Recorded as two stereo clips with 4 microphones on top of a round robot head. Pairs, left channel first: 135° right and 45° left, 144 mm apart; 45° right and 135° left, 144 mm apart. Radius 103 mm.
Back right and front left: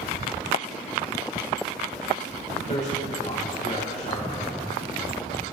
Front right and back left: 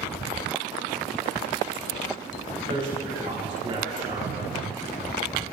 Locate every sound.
2.7 s a man speaking: 175° right, 4 m